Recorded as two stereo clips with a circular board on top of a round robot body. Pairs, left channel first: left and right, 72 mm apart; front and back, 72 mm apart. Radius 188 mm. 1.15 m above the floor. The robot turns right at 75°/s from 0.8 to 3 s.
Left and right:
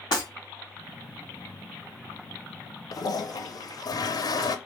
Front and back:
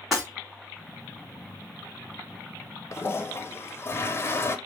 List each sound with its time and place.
0.1 s breaking glass: 90° left, 0.9 m
2.9 s a toilet flushing: 55° left, 0.5 m; by 4.6 s 60° left, 0.5 m